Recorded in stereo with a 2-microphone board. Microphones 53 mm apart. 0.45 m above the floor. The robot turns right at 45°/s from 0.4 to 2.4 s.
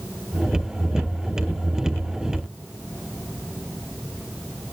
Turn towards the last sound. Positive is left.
No sound to turn to.